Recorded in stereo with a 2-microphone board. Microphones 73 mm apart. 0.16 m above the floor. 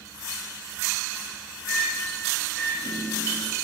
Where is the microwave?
20° left (ahead or behind), 1.1 m.